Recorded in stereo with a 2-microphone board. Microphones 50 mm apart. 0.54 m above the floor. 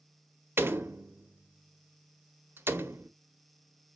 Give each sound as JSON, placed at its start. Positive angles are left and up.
{"t": 0.6, "sound": "a door slam", "side_deg": -45, "distance_m": 0.6}